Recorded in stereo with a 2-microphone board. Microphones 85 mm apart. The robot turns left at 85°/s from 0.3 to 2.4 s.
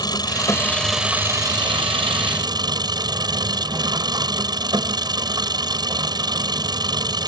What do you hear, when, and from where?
0.0 s an engine running: 55° left; by 7.3 s 125° right